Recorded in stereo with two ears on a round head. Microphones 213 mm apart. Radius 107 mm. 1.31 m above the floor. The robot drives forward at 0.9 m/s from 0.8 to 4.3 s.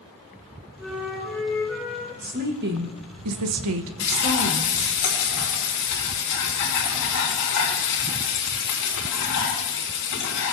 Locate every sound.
0.8 s a flute: 5° right (ahead or behind), 2.5 m; by 2.1 s centre (ahead or behind), 3.5 m
2.2 s a woman speaking: 35° right (ahead or behind), 1.3 m; by 5.0 s 45° right (ahead or behind), 1.1 m
4.0 s frying: 70° left (ahead or behind), 3.5 m; by 10.5 s 75° left (ahead or behind), 3.5 m